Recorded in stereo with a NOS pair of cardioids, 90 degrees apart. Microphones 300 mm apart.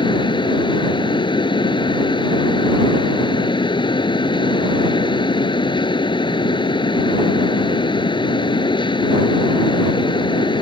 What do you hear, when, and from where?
0.0 s a fan: 15° left